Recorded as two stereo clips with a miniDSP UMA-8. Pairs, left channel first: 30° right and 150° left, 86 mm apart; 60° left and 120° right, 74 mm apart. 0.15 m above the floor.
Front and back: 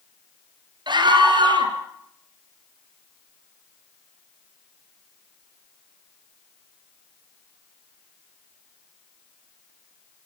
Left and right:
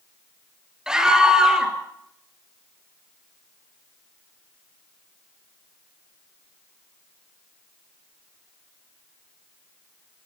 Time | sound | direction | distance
0.9 | a scream | 160° left | 3 m